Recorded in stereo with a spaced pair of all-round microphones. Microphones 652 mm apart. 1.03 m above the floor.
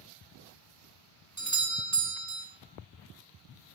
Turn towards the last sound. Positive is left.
turn(degrees=-25)  # may be behind; listen again after turning